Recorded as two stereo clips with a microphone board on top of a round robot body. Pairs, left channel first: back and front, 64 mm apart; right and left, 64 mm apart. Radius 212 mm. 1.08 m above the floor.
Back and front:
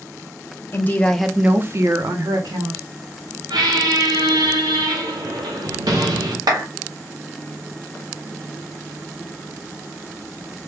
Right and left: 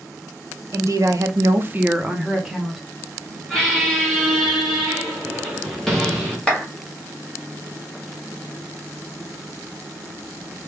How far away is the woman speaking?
About 1.1 m.